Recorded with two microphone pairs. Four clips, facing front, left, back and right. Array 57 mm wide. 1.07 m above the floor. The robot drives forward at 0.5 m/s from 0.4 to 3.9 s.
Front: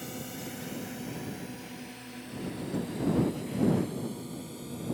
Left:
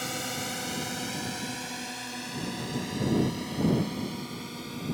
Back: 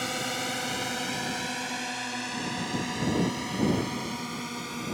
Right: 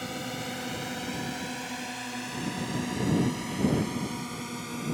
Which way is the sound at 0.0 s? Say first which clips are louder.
Left 1 dB, back 9 dB; 165° left.